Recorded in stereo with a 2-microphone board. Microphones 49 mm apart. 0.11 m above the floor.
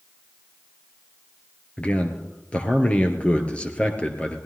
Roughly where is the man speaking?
Left.